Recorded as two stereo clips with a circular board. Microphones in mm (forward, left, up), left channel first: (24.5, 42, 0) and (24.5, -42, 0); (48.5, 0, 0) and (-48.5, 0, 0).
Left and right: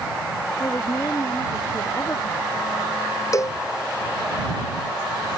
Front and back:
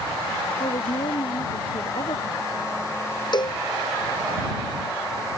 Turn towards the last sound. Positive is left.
turn(degrees=40)